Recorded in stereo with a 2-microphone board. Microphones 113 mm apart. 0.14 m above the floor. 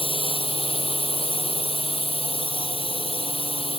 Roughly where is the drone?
Left.